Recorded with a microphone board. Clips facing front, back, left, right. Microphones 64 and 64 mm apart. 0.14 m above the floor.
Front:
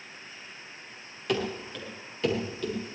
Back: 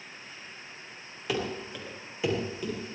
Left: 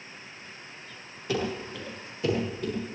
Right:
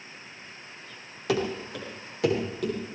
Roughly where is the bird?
No bird in this recording.